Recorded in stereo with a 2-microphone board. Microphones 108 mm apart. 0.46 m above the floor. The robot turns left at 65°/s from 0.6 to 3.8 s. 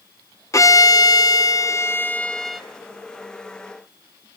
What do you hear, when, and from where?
0.5 s a violin: 125° left, 1.2 m; by 2.6 s 5° right, 1.2 m